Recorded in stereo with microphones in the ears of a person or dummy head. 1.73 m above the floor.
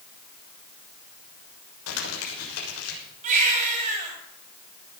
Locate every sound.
1.9 s crumpling: 85° left, 6.5 m
3.2 s a baby crying: 40° right (ahead or behind), 7 m